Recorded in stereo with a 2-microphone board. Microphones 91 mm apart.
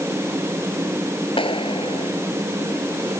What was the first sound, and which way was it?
A clap, 75° left (ahead or behind).